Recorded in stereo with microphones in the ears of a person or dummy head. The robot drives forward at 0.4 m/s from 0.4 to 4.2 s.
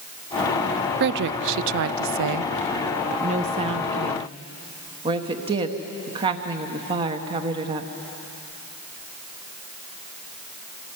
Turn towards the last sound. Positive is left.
turn(degrees=-25)  # may be behind; listen again after turning